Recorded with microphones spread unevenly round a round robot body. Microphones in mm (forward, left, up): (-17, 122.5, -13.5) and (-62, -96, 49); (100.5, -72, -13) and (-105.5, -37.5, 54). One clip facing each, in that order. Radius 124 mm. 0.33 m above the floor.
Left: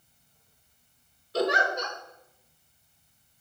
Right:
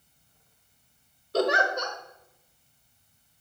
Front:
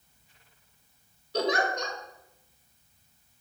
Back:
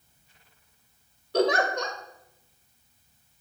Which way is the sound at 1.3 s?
150° right.